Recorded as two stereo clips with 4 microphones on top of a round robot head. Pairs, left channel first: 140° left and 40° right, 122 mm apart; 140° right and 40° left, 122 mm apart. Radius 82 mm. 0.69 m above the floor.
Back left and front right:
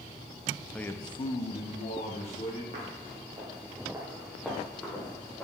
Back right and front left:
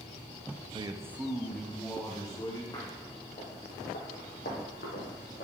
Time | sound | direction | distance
0.7 | a man speaking | 60° left | 0.6 m
2.7 | footsteps | 75° right | 2 m